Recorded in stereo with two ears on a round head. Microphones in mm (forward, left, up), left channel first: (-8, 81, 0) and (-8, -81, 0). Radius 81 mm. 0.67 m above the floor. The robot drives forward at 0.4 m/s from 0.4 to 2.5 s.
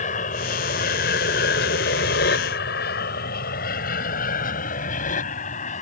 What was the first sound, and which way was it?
An aircraft, 45° left (ahead or behind).